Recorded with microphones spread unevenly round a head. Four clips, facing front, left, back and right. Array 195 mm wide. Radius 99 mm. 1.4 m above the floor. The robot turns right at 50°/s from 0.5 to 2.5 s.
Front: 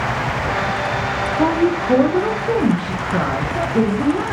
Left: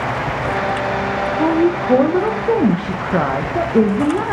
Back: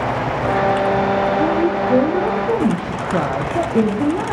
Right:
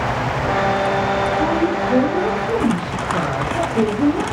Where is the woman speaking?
25° left, 1.2 m; by 4.3 s 80° left, 1.2 m.